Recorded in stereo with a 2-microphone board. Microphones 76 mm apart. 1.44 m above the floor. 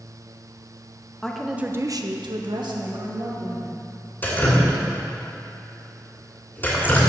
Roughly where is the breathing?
I don't hear breathing.